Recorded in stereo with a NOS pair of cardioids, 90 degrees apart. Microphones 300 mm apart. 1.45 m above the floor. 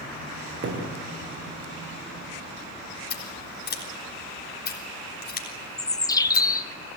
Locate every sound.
0.6 s a thud: 40° right, 6 m
3.1 s scissors: 35° left, 4.5 m
5.8 s a bird: 10° left, 0.7 m